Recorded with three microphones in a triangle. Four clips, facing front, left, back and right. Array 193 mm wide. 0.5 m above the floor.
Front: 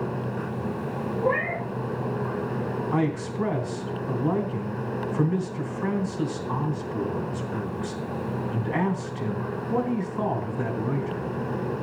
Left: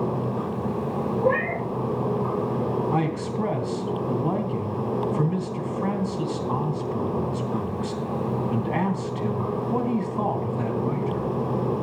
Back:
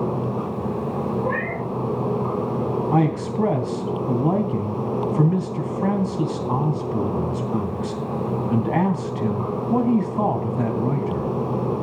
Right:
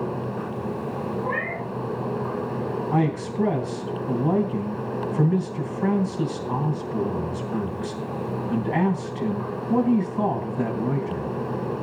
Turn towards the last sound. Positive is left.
turn(degrees=-165)